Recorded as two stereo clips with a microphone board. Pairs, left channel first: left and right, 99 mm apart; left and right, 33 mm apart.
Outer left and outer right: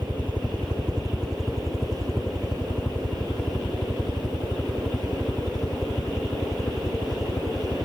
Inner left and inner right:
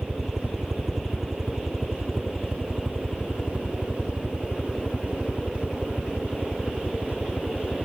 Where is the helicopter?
15° right (ahead or behind); by 7.9 s 35° left (ahead or behind).